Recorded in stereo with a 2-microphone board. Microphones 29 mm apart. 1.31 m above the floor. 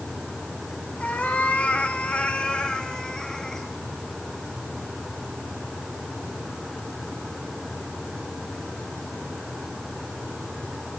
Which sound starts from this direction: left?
A cat meowing, at 1.0 s.